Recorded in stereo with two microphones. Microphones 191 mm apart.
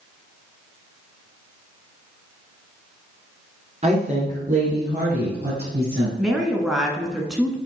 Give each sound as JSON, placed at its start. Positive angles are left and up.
{"t": 3.8, "sound": "a woman speaking", "side_deg": -40, "distance_m": 2.5}
{"t": 6.2, "sound": "a woman speaking", "side_deg": -5, "distance_m": 1.1}